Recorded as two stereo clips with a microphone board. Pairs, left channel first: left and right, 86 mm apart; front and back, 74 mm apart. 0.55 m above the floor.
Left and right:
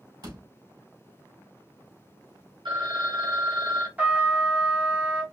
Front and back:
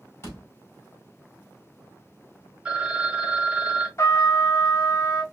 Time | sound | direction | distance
0.2 | a door slam | 55° right | 3 m
2.6 | a phone ringing | 105° right | 2 m
4.0 | a trumpet | 30° right | 1.0 m